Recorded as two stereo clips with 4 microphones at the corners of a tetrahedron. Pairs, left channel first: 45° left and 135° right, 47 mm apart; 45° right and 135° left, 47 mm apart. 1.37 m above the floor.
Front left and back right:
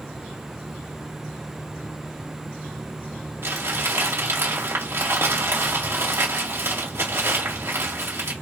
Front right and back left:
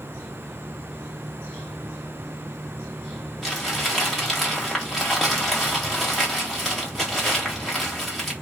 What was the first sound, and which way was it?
Crumpling, 135° right.